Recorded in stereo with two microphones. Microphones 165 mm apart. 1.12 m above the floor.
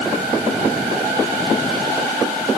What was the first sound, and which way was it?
Only background noise.